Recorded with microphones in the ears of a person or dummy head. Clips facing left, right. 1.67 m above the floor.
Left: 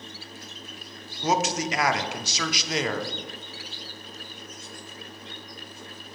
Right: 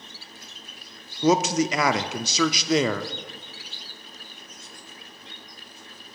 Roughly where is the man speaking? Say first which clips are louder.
Right 5 dB; right.